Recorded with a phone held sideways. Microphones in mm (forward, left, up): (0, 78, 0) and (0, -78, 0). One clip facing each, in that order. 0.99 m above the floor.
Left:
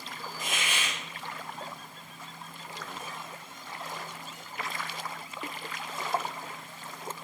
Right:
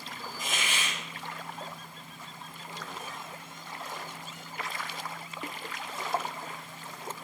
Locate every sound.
0.4 s a hiss: 65° left (ahead or behind), 0.9 m